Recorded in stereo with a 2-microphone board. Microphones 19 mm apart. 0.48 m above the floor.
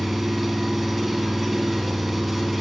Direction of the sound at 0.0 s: 5° right (ahead or behind).